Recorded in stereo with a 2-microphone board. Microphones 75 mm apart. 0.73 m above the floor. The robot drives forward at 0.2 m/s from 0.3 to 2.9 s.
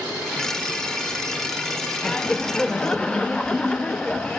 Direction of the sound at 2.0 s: 10° left (ahead or behind).